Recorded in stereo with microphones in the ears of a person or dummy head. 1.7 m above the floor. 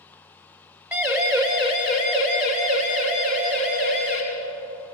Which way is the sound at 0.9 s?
15° right (ahead or behind).